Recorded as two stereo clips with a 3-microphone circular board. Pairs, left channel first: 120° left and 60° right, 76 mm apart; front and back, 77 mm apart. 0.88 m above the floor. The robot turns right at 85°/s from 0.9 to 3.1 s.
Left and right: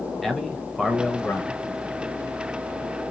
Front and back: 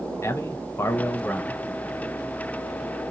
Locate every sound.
0.2 s a man speaking: 30° left, 0.6 m; by 1.5 s 85° left, 0.6 m